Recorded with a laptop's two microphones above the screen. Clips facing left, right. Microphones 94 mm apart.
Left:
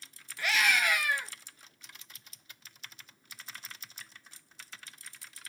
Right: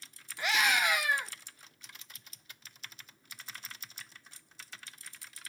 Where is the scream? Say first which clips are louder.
Even; 20° right (ahead or behind), 1.0 m.